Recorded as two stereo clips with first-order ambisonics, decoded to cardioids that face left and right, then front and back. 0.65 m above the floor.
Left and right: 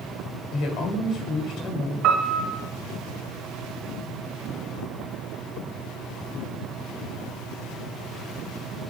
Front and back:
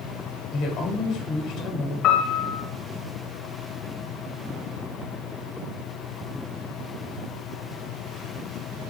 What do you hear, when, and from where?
0.5 s a woman speaking: 45° left, 2 m
2.0 s a piano: 50° right, 1.2 m